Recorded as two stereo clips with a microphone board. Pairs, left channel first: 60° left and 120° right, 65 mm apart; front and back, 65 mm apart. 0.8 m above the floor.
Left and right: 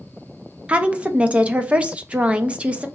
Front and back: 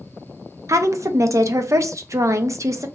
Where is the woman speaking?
175° left, 0.5 m.